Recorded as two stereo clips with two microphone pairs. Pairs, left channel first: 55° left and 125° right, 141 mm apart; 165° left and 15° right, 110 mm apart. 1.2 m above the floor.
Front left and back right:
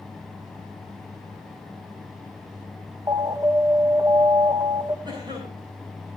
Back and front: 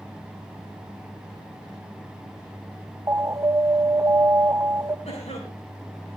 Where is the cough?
175° left, 7 m.